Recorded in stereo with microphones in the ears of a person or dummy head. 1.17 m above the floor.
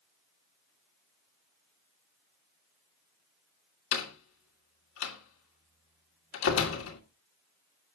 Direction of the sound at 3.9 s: 85° left.